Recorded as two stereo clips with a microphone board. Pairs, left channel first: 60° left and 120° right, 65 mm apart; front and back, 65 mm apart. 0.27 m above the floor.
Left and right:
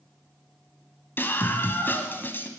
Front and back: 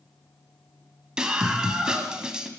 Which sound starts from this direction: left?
A scream, at 1.2 s.